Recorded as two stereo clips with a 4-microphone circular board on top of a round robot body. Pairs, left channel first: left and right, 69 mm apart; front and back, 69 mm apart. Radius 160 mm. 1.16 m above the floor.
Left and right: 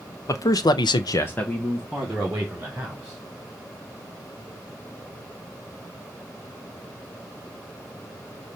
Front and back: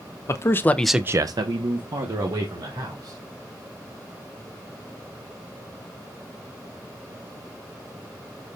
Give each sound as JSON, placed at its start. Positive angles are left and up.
{"t": 0.3, "sound": "a man speaking", "azimuth_deg": 50, "distance_m": 1.2}